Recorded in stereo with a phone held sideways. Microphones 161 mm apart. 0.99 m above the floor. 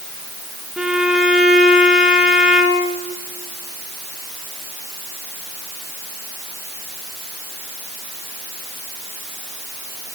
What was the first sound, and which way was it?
A violin, 5° right (ahead or behind).